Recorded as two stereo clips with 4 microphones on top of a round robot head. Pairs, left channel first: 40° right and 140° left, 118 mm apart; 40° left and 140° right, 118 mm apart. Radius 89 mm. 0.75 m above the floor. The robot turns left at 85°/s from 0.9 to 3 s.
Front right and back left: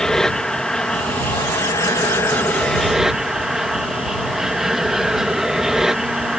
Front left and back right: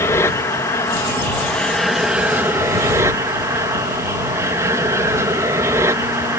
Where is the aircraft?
35° left; by 6.4 s 140° right.